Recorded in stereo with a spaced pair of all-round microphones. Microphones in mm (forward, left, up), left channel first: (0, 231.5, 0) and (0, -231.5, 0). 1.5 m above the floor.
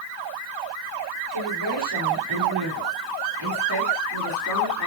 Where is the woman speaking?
65° right (ahead or behind), 5.5 m; by 4.9 s 40° right (ahead or behind), 4 m.